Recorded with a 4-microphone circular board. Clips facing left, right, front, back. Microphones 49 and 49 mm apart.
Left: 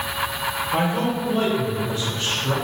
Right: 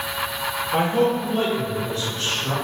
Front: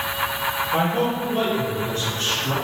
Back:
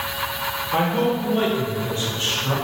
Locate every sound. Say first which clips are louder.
0.7 s a man speaking: right 4 dB, back 3 dB; 145° right, 1.5 m; by 2.5 s 120° left, 1.4 m